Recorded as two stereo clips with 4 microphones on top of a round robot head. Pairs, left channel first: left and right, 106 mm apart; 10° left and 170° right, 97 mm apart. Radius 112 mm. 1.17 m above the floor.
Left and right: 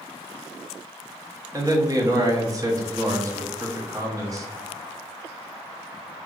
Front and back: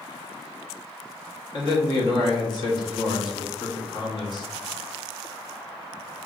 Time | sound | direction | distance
1.5 | a man speaking | 35° right | 0.9 m